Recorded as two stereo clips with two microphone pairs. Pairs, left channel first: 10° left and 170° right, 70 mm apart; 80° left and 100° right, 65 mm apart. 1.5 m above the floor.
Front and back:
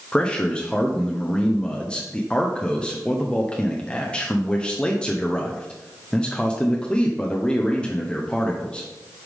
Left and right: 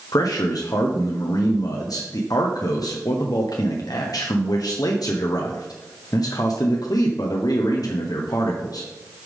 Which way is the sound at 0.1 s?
85° left.